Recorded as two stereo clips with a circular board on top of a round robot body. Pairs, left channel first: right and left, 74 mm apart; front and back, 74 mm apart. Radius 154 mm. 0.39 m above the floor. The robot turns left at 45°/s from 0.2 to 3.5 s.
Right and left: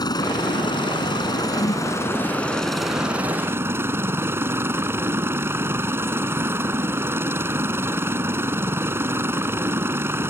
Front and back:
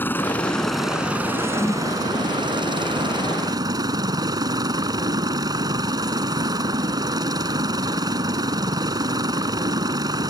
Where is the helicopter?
65° right; by 10.3 s 145° left.